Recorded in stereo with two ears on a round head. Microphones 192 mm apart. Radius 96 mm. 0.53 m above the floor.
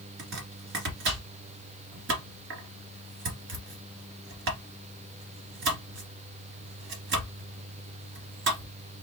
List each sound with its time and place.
0.2 s chopping: 60° right (ahead or behind), 1.8 m